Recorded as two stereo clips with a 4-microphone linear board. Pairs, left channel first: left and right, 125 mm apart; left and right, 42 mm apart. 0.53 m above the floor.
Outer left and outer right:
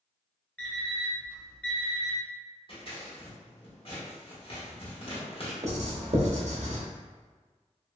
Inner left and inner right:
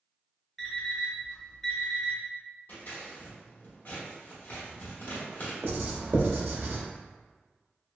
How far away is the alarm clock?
About 1.0 m.